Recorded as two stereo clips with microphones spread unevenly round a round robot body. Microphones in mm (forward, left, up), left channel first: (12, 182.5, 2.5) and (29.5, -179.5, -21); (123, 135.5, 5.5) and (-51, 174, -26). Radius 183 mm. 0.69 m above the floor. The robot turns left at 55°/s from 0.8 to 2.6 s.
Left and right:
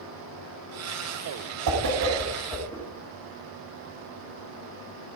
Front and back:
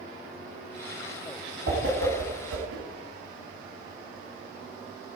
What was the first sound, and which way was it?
A whoosh, 135° right.